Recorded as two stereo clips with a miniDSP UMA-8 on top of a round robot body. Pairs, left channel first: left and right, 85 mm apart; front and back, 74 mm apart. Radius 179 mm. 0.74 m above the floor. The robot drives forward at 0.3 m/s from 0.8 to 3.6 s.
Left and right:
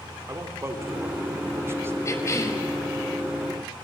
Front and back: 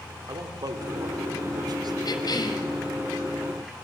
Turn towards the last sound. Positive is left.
turn(degrees=35)